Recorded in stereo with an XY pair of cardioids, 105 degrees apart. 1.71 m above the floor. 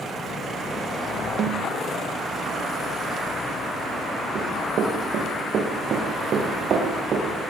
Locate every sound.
1.4 s a snare drum: 65° right, 2.0 m
4.3 s running footsteps: 60° right, 6.5 m